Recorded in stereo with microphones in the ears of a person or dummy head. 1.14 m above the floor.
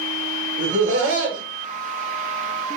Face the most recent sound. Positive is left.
turn(degrees=-35)  # may be behind; listen again after turning